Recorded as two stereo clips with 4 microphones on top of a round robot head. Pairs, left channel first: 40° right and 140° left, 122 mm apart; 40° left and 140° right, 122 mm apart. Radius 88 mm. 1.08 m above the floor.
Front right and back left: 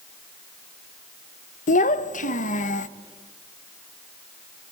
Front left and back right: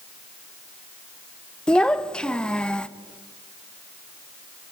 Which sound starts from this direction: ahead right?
A child speaking, at 1.7 s.